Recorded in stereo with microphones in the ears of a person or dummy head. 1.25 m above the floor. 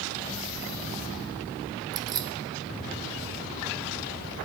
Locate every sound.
1.9 s keys jangling: 25° right (ahead or behind), 0.7 m